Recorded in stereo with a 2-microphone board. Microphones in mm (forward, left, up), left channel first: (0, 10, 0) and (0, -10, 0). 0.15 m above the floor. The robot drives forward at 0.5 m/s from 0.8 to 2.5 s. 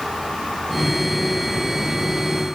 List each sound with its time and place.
Only background noise.